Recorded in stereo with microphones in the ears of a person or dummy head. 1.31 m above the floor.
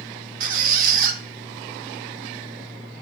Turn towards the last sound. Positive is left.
turn(degrees=-45)  # may be behind; listen again after turning